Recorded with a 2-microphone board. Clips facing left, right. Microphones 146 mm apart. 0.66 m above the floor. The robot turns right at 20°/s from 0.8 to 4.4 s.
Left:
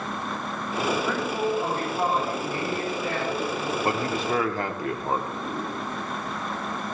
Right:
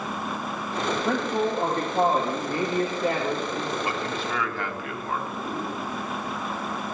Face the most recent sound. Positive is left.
turn(degrees=40)  # may be behind; listen again after turning